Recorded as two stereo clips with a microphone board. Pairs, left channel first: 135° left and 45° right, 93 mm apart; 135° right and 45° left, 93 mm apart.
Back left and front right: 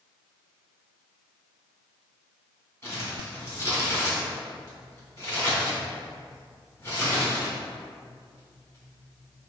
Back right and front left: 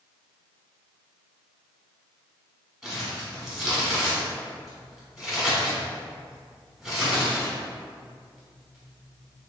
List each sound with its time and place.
2.8 s crumpling: 135° left, 1.6 m